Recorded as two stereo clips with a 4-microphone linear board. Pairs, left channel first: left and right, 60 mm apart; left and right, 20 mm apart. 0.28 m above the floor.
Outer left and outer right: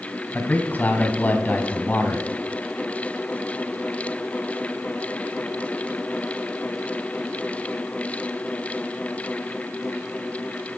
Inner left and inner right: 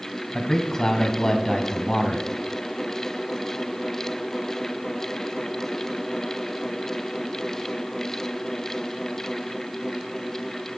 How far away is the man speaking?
About 2 m.